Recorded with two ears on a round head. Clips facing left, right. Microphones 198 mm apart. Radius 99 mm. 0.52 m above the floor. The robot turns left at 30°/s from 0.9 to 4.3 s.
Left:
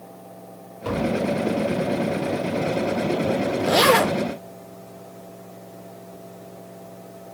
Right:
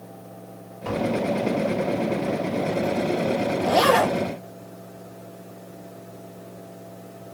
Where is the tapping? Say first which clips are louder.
Left 1 dB; 35° left (ahead or behind), 1.8 m; by 1.2 s 30° left (ahead or behind), 1.8 m.